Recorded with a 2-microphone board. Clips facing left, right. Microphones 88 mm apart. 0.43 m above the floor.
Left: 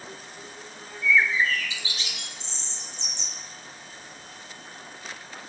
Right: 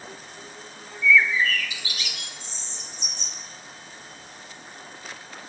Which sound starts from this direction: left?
A bird, at 1.0 s.